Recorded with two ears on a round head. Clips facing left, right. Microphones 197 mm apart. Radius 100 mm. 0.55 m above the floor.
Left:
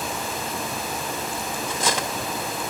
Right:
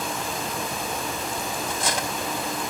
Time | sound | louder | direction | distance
1.7 | cutlery clinking | left 4 dB | 60° left (ahead or behind) | 0.9 m